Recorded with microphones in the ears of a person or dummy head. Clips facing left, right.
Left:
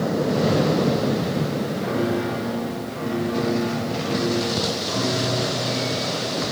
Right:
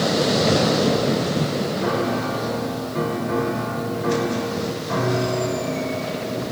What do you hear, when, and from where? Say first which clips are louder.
1.8 s a piano: left 2 dB; 70° right (ahead or behind), 4 m